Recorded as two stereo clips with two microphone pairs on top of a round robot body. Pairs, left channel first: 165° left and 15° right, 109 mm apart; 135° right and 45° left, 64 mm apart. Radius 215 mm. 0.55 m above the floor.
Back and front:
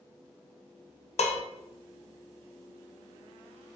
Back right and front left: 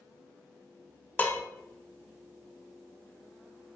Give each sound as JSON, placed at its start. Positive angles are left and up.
{"t": 1.2, "sound": "dishes clattering", "azimuth_deg": 170, "distance_m": 0.5}